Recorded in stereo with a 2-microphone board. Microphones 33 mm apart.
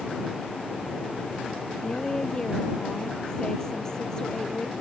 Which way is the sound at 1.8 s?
20° left (ahead or behind).